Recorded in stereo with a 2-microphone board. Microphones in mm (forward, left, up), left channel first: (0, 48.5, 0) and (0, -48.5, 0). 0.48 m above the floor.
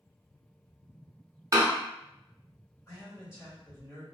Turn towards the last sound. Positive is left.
turn(degrees=35)  # may be behind; listen again after turning